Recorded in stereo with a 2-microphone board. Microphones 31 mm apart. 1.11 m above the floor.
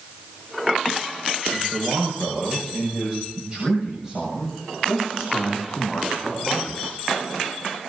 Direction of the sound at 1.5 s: 55° right (ahead or behind).